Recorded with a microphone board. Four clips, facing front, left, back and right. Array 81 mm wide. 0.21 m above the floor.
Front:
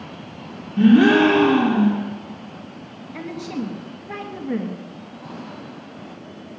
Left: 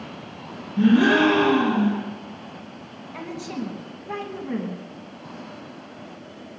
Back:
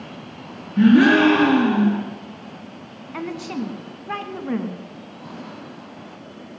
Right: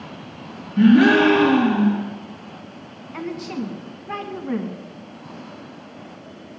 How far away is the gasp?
About 4.5 m.